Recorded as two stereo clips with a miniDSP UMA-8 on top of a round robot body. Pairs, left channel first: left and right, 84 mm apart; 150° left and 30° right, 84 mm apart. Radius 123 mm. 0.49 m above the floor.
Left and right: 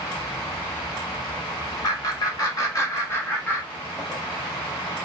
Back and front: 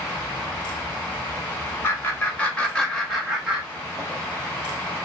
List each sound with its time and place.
1.8 s laughter: 95° left, 1.7 m; by 4.2 s 20° left, 1.5 m